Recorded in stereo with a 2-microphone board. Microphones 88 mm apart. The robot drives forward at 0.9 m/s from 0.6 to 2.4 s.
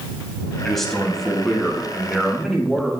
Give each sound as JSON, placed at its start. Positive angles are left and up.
{"t": 0.6, "sound": "a man speaking", "side_deg": 5, "distance_m": 1.9}